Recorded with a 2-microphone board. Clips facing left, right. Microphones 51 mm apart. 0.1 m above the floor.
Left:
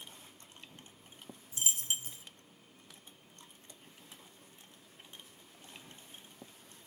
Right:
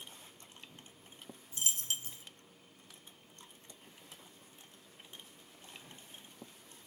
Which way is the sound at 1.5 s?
20° left (ahead or behind).